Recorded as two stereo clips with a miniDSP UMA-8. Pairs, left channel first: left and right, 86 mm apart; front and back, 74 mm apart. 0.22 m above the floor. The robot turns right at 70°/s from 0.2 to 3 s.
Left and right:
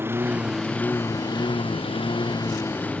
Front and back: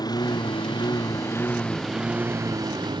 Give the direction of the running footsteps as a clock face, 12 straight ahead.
I don't hear running footsteps.